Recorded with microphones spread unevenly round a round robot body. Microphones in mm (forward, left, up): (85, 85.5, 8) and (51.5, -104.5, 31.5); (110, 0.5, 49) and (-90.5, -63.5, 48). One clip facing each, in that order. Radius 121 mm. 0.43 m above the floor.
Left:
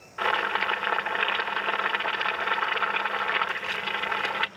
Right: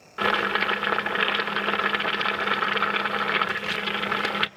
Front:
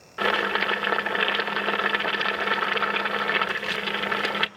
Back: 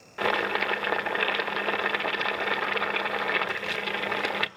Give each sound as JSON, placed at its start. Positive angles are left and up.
{"t": 0.2, "sound": "boiling", "azimuth_deg": -65, "distance_m": 1.3}